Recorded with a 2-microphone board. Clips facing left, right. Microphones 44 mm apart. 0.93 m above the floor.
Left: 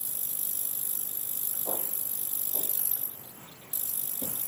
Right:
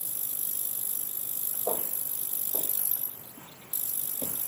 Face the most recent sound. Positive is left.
turn(degrees=-50)  # may be behind; listen again after turning